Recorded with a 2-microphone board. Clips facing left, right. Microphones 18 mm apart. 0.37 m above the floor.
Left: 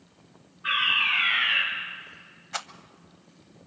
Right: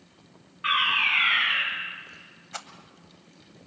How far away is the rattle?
About 0.8 m.